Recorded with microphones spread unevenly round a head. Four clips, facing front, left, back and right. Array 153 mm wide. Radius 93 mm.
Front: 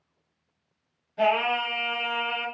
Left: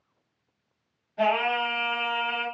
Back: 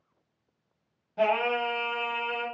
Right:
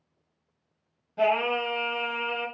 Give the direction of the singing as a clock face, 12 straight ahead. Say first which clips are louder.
Even, front 2 dB; 5 o'clock.